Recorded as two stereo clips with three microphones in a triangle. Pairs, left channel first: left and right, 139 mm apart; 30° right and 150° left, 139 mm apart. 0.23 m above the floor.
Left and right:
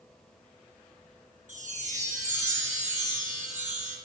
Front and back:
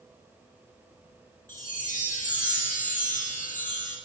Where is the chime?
60° right, 3 m.